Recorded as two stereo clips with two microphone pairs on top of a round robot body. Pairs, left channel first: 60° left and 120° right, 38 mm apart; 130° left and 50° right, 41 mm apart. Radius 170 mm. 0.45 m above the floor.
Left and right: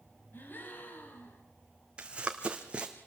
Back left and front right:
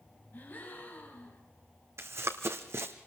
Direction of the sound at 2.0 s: 60° right.